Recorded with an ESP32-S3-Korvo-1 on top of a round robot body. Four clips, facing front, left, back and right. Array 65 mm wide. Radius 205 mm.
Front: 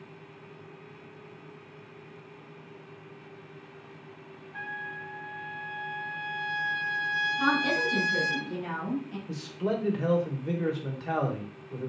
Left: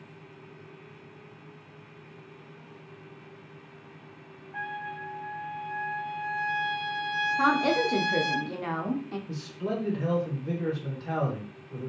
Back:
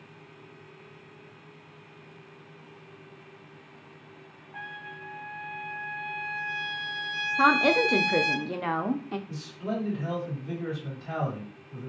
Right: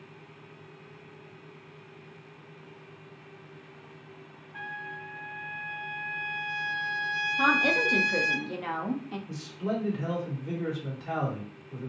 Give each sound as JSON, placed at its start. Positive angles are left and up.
{"t": 4.5, "sound": "a trumpet", "azimuth_deg": 95, "distance_m": 1.6}
{"t": 7.4, "sound": "a woman speaking", "azimuth_deg": 170, "distance_m": 0.6}
{"t": 9.3, "sound": "a man speaking", "azimuth_deg": 10, "distance_m": 1.5}